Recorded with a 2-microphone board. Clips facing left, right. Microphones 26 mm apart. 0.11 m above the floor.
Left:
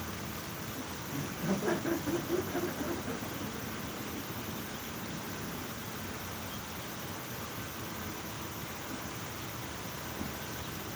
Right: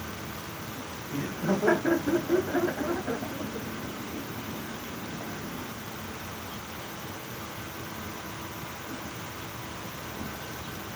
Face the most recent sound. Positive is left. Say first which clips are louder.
# right 6 dB
turn(degrees=-50)  # may be behind; listen again after turning